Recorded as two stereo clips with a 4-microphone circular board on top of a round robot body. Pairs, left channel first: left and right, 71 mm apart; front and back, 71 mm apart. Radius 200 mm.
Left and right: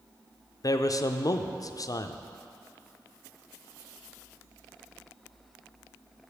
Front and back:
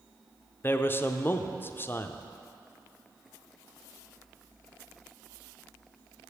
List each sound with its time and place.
0.6 s a man speaking: 60° left, 0.5 m